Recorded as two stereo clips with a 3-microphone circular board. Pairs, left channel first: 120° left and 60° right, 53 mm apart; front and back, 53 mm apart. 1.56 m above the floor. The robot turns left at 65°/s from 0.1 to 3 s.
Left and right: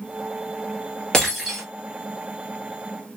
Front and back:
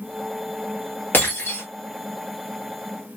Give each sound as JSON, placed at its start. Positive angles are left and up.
{"t": 1.1, "sound": "breaking glass", "azimuth_deg": 40, "distance_m": 1.4}